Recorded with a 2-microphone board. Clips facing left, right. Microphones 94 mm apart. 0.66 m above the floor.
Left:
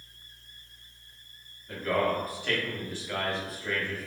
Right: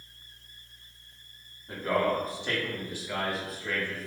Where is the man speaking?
30° right (ahead or behind), 1.4 m; by 4.1 s 15° left (ahead or behind), 1.1 m.